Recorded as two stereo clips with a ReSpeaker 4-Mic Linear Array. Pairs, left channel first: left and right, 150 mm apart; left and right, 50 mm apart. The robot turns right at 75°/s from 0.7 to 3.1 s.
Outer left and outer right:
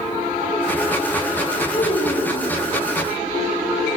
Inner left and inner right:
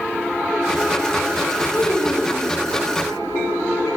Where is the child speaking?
30° left, 1.4 m; by 2.6 s 100° left, 1.4 m.